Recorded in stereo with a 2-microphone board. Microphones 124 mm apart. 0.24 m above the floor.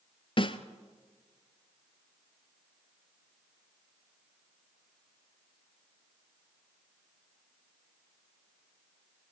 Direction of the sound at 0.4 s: 45° left (ahead or behind).